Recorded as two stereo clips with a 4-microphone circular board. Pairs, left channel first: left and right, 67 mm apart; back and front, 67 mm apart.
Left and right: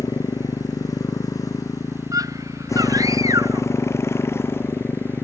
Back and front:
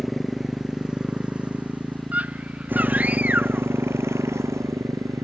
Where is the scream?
65° right.